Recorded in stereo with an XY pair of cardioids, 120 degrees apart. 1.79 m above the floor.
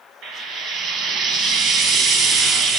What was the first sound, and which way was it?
Frying, 70° right.